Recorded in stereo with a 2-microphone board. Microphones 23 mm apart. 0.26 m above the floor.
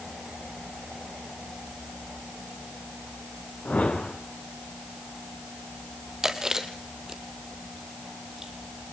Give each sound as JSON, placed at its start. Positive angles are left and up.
{"t": 3.6, "sound": "a whoosh", "side_deg": 80, "distance_m": 2.5}
{"t": 6.2, "sound": "chewing", "side_deg": -20, "distance_m": 2.0}